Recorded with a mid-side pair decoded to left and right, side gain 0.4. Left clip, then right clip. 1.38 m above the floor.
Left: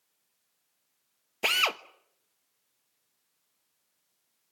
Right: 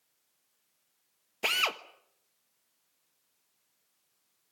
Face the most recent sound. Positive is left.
turn(degrees=30)